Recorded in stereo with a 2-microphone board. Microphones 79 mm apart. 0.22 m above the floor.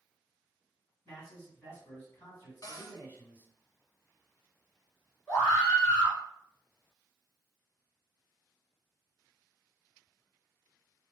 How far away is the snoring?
I don't hear snoring.